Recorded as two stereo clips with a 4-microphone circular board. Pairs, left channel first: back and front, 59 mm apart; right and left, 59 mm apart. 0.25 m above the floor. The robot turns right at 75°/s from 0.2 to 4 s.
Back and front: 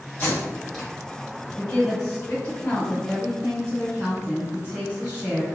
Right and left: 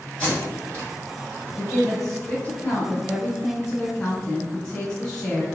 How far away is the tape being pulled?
About 1.8 m.